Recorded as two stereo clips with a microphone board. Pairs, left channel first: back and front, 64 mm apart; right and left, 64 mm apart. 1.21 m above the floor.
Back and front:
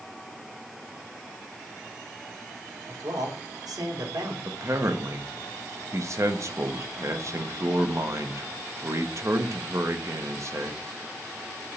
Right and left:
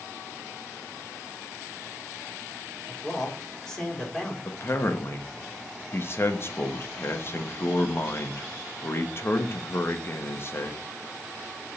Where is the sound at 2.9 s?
10° right, 3 m.